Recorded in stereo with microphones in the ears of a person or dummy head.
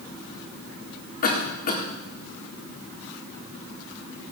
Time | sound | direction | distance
1.2 | a cough | 40° left (ahead or behind) | 4 m